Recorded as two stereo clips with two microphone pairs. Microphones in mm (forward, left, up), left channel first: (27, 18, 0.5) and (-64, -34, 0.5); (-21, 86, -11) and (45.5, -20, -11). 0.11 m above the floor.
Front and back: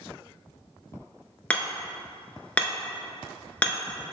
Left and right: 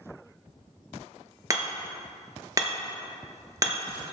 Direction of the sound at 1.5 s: 35° right.